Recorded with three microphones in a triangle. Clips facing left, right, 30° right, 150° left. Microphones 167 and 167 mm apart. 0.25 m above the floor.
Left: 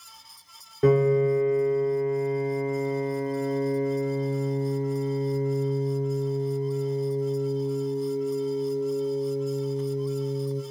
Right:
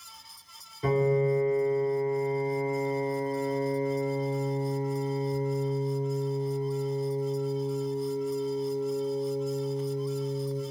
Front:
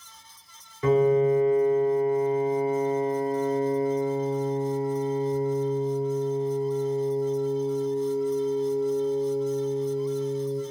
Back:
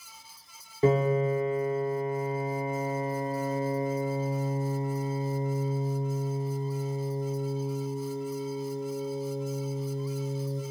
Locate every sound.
0.8 s a piano: 100° left, 0.6 m